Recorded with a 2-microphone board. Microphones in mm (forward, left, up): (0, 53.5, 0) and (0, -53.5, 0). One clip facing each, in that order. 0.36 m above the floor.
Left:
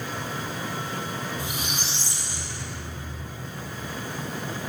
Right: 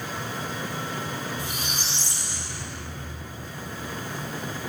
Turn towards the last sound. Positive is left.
turn(degrees=15)  # may be behind; listen again after turning